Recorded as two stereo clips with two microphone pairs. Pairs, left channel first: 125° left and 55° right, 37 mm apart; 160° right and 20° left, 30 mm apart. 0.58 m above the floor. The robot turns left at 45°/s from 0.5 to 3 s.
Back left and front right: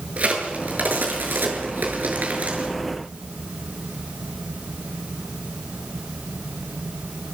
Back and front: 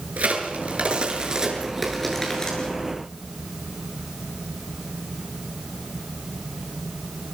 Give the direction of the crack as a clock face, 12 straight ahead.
12 o'clock.